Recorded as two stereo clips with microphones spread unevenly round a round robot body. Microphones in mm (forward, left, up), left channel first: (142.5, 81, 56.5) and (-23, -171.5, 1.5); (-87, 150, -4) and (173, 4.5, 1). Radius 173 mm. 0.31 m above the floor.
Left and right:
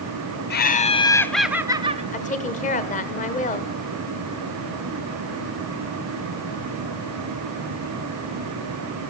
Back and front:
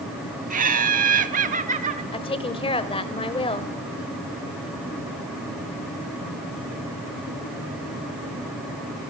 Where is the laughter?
10° left, 1.0 m; by 2.0 s 85° right, 1.0 m.